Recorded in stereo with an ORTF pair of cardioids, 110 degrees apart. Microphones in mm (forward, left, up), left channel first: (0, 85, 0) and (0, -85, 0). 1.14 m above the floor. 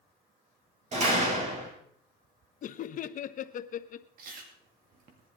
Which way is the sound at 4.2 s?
60° right.